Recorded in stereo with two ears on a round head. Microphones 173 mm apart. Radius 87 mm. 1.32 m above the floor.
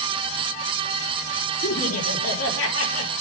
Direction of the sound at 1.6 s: 75° left (ahead or behind).